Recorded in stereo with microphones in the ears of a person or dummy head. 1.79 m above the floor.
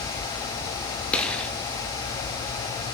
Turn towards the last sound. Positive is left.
turn(degrees=5)  # may be behind; listen again after turning